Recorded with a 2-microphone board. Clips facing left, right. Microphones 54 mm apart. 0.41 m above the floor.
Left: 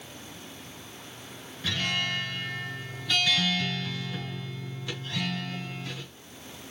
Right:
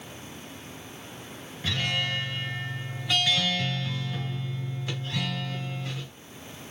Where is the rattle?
No rattle in this recording.